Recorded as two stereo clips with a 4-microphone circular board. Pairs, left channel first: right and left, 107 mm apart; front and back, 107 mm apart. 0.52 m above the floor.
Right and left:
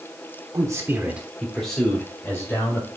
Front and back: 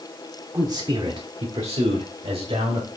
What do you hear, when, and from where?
0.5 s a man speaking: 135° left, 1.0 m; by 2.9 s 155° right, 2.0 m